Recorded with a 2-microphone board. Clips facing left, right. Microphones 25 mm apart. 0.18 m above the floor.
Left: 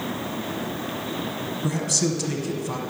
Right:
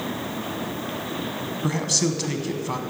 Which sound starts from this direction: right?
A man speaking, at 1.6 s.